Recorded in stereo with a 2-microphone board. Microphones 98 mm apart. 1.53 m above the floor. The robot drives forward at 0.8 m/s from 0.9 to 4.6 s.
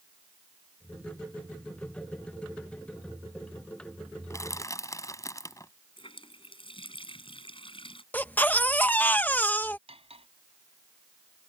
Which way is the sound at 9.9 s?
85° right.